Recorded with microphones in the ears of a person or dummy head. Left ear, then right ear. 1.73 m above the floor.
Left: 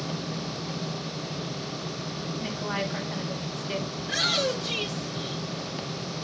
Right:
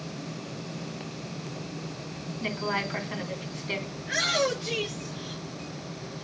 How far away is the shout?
About 6 m.